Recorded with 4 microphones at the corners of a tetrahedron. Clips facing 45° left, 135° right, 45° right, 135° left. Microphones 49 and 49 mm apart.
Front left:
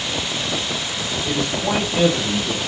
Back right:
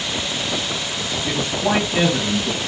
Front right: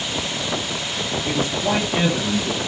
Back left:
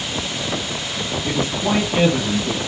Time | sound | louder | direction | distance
1.2 | a man speaking | back right 1 dB, back left 1 dB | 175° left | 2 m